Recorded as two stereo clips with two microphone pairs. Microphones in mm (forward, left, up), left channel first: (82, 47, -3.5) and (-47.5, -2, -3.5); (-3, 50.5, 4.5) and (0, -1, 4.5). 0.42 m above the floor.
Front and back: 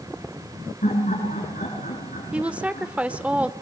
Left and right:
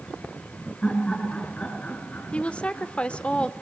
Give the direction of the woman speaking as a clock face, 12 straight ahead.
8 o'clock.